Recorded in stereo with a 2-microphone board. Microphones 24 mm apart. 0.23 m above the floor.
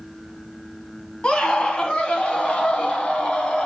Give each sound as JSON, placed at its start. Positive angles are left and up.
{"t": 1.2, "sound": "a scream", "side_deg": 40, "distance_m": 1.4}